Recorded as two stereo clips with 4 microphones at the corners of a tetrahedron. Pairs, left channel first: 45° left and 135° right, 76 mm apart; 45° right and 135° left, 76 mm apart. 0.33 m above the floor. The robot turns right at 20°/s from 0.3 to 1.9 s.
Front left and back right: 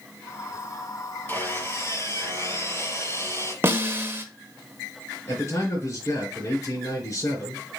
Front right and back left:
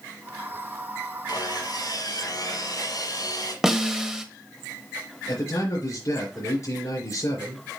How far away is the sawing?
About 5 m.